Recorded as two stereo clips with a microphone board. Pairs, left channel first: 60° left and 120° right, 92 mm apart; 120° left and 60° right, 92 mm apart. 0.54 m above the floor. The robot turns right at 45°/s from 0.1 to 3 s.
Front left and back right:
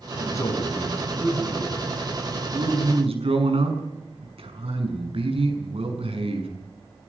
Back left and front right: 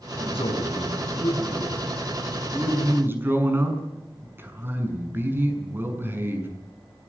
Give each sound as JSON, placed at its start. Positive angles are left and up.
{"t": 0.2, "sound": "a man speaking", "azimuth_deg": 105, "distance_m": 6.0}